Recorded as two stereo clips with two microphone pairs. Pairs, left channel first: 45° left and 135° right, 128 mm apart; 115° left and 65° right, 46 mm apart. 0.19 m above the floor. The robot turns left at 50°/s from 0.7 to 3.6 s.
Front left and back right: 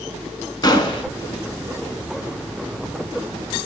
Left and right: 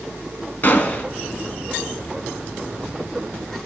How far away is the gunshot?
About 0.6 m.